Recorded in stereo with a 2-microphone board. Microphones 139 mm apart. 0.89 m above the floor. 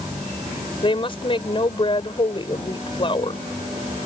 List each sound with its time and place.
0.8 s a woman speaking: 40° left (ahead or behind)